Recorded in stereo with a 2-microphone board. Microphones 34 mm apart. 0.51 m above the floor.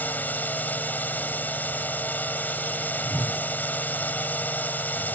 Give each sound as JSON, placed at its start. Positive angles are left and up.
{"t": 0.0, "sound": "a drone", "side_deg": 65}
{"t": 3.0, "sound": "a whoosh", "side_deg": 60}